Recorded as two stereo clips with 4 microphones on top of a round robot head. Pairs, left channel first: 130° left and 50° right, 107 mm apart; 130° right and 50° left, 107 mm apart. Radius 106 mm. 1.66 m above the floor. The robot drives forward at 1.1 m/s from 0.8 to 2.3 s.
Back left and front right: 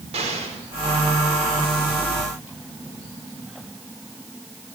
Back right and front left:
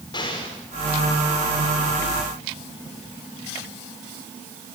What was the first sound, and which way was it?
An explosion, 75° right.